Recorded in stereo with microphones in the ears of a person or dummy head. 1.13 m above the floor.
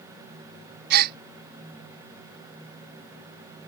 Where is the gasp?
55° right (ahead or behind).